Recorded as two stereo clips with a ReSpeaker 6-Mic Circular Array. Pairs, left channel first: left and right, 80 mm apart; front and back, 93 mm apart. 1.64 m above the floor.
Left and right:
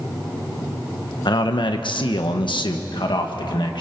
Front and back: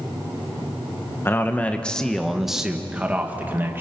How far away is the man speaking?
About 1.4 m.